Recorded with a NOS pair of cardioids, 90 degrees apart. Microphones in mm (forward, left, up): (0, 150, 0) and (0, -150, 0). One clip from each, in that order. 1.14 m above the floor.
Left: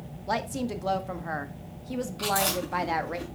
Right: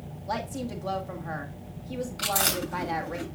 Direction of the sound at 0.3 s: 30° left.